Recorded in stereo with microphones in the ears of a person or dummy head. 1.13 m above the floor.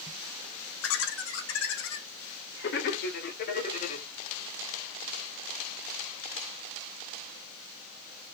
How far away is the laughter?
About 3.5 m.